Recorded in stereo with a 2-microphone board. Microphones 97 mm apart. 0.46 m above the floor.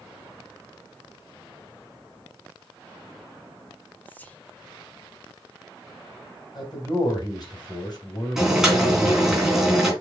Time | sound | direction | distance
4.0 | whispering | 20° left (ahead or behind) | 1.4 m
6.5 | a man speaking | 45° left (ahead or behind) | 3.5 m
8.4 | boiling | 5° right (ahead or behind) | 3 m